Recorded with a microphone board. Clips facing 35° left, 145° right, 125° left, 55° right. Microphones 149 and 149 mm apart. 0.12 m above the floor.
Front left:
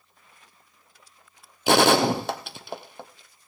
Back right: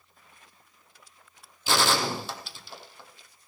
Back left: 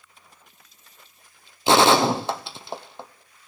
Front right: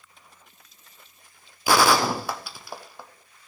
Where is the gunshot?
60° left, 0.9 m.